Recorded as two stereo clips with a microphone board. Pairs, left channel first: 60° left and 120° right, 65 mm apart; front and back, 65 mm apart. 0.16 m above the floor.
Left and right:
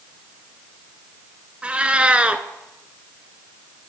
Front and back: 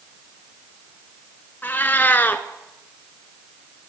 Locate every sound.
1.6 s a cat meowing: 55° right, 0.6 m